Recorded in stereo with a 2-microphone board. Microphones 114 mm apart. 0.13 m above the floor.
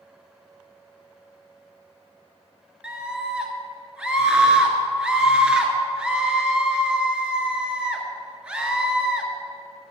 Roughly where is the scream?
Centre.